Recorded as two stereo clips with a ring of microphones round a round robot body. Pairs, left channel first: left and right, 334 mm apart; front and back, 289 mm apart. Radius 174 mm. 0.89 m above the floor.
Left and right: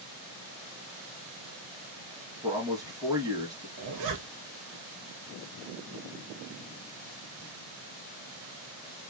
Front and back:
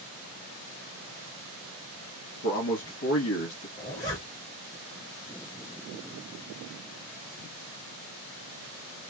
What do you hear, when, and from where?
2.4 s a man speaking: 15° right, 1.2 m
3.8 s a zipper: 75° right, 1.0 m